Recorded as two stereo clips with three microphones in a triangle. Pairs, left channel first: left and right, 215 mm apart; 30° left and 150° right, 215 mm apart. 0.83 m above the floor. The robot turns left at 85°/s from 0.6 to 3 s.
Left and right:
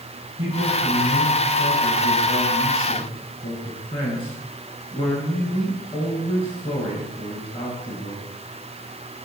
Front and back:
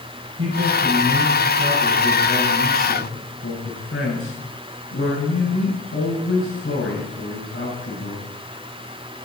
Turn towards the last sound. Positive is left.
turn(degrees=25)